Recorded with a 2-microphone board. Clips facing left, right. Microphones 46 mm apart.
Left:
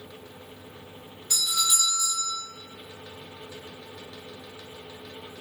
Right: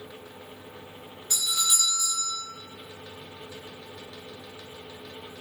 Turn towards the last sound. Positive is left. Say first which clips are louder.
# left 1 dB
turn(degrees=-20)  # may be behind; listen again after turning